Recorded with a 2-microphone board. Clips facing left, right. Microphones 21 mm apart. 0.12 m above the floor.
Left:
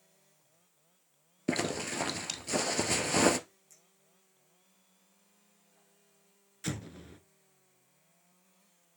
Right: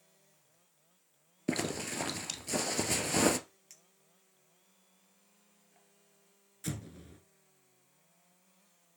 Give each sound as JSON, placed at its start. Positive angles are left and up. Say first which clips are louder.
{"t": 1.5, "sound": "a zipper", "louder": "left 2 dB", "side_deg": 10, "distance_m": 0.8}
{"t": 3.7, "sound": "a clink", "louder": "right 2 dB", "side_deg": -55, "distance_m": 1.9}
{"t": 6.6, "sound": "an explosion", "louder": "left 3 dB", "side_deg": 25, "distance_m": 0.9}